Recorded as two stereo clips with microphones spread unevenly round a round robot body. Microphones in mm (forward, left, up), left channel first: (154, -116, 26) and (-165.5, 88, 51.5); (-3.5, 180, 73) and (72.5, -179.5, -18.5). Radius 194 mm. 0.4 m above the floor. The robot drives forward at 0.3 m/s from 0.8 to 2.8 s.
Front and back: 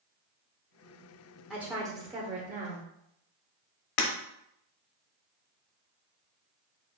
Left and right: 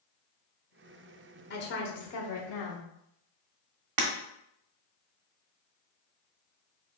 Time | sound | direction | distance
1.5 | a woman speaking | 50° left | 0.8 m
4.0 | breaking glass | 55° right | 1.0 m